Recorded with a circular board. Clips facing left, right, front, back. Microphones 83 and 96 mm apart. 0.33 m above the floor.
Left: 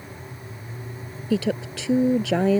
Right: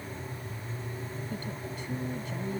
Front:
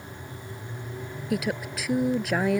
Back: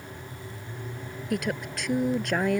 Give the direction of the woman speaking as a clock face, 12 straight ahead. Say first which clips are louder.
Left 13 dB, front 1 dB; 9 o'clock.